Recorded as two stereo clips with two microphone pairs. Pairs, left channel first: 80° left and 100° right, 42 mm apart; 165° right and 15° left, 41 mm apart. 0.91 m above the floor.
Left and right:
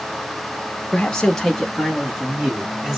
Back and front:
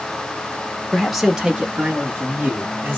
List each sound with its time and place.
0.9 s a man speaking: 105° left, 0.8 m; by 3.0 s 30° right, 1.5 m